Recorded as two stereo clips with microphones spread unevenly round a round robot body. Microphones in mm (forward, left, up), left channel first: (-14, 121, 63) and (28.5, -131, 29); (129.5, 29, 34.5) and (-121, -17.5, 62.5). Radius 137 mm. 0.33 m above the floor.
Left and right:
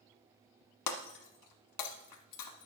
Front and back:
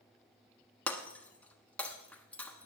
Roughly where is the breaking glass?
Left.